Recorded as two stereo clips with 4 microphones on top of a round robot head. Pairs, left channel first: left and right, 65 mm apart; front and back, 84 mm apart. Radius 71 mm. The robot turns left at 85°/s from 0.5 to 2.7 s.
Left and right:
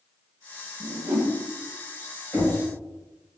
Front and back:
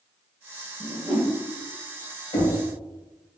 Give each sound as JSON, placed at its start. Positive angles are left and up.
{"t": 0.8, "sound": "a whoosh", "azimuth_deg": -80, "distance_m": 0.7}
{"t": 2.3, "sound": "knocking", "azimuth_deg": 15, "distance_m": 0.8}